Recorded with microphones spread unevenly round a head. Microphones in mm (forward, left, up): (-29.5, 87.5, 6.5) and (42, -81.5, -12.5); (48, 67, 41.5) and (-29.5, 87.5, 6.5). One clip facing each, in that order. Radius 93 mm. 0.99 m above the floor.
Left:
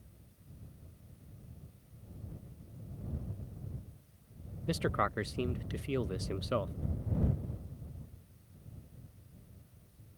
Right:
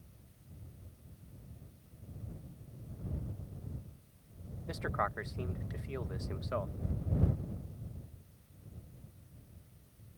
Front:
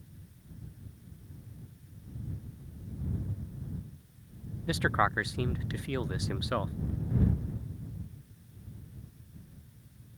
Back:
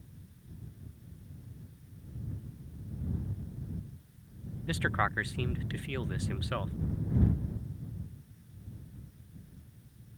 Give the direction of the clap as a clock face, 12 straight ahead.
No clap in this recording.